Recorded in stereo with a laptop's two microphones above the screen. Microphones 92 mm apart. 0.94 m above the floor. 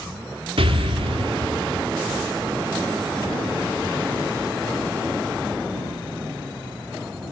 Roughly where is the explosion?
Right.